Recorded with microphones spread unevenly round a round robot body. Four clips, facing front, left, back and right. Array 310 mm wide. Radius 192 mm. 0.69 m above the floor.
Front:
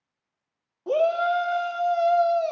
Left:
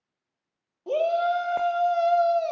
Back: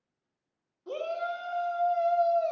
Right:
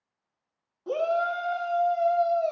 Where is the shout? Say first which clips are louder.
Left 3 dB, front 11 dB; straight ahead, 1.7 m; by 2.5 s 75° left, 2.5 m.